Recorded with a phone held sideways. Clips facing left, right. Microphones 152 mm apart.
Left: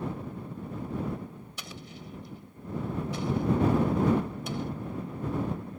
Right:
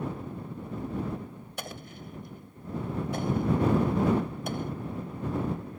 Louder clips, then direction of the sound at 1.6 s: Right 6 dB; 55° right (ahead or behind).